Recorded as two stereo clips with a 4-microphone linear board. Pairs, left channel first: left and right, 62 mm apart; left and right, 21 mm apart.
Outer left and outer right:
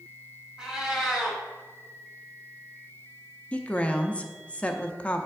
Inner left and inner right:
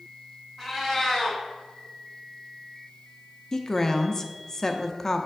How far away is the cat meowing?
About 1.6 m.